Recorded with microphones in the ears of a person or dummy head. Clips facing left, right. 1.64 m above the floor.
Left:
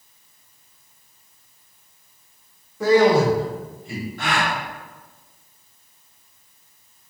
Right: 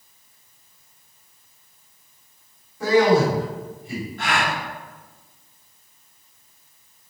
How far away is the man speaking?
About 1.6 m.